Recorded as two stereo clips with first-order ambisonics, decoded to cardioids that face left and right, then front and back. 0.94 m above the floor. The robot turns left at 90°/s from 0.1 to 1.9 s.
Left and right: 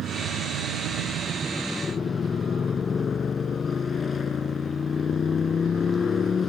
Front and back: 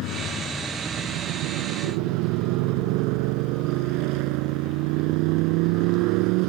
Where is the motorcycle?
35° right; by 6.5 s 160° left.